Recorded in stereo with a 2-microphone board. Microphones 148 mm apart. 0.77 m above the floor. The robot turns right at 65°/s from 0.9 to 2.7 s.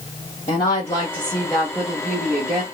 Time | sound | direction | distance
0.5 | a woman speaking | 135° left | 1.4 m